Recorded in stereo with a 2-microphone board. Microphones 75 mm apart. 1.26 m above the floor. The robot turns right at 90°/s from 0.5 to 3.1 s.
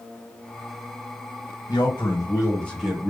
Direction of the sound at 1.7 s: 80° left.